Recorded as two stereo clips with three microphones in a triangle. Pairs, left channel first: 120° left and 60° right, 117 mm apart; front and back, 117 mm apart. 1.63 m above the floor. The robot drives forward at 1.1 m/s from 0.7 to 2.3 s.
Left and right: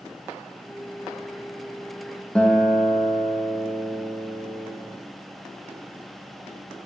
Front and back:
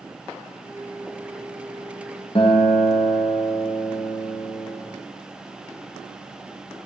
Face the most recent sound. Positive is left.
turn(degrees=40)